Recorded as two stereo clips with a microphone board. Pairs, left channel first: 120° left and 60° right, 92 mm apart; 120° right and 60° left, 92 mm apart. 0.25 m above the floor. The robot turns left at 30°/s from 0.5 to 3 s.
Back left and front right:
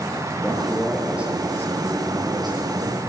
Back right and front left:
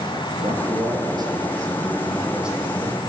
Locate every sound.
0.4 s a man speaking: 40° left, 6 m; by 3.0 s 35° right, 6 m